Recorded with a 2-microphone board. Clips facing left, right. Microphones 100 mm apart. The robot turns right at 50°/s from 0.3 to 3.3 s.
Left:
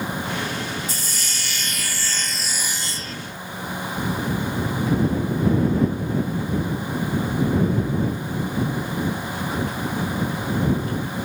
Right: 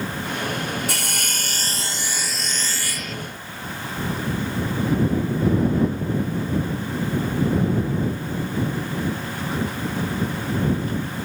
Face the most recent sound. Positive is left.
turn(degrees=45)